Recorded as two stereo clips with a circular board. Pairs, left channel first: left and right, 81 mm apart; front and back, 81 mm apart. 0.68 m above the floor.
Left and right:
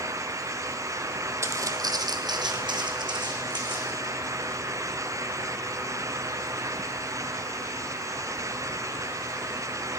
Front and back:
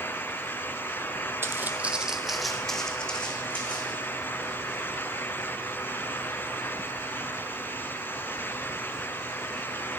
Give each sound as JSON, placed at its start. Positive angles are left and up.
{"t": 1.4, "sound": "footsteps", "azimuth_deg": -130, "distance_m": 1.0}